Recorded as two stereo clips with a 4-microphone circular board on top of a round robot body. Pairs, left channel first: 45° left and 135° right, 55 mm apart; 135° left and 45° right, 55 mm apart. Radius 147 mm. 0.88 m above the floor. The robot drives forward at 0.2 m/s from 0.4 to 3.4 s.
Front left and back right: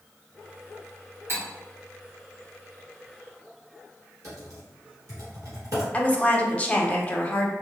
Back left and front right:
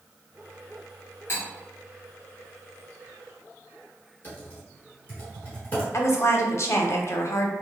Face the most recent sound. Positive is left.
turn(degrees=110)